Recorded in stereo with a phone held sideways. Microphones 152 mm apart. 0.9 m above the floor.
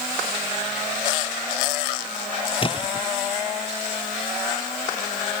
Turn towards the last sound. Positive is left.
turn(degrees=35)  # may be behind; listen again after turning